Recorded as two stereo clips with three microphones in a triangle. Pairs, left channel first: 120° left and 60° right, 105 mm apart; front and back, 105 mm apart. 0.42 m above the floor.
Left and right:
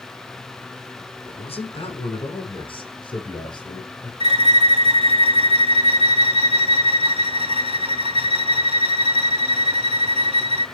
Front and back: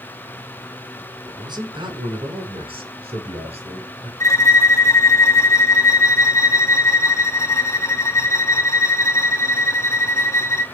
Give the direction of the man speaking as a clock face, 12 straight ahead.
8 o'clock.